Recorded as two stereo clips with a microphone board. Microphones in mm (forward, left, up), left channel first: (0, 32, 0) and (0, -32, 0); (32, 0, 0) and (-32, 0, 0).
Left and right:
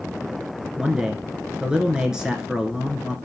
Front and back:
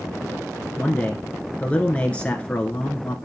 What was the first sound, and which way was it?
A man speaking, 30° right.